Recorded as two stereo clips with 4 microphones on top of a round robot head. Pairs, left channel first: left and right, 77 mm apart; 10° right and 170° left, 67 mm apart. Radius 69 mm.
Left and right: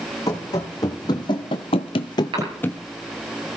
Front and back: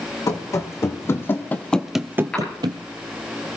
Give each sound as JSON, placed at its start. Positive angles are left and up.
{"t": 0.3, "sound": "running footsteps", "azimuth_deg": 30, "distance_m": 2.5}
{"t": 2.3, "sound": "a cough", "azimuth_deg": -85, "distance_m": 8.0}